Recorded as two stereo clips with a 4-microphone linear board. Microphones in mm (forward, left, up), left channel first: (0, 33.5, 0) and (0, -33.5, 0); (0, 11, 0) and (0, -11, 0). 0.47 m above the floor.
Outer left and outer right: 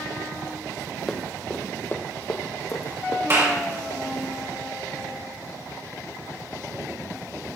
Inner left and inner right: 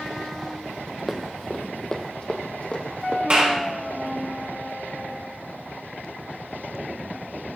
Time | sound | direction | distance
1.1 | running footsteps | 5° left (ahead or behind) | 1.1 m
3.3 | a clap | 50° right (ahead or behind) | 4 m